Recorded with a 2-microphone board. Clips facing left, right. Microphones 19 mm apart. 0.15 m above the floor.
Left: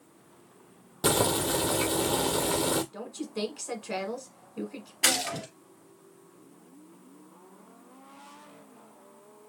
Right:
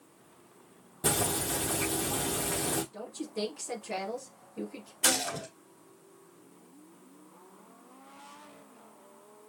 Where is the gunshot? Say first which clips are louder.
Left 2 dB; 50° left (ahead or behind), 3 m.